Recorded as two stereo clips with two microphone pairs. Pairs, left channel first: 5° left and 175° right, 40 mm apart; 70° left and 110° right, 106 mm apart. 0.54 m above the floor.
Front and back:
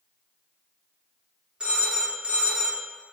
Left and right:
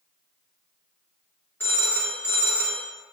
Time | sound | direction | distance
1.6 | a phone ringing | 130° left | 0.9 m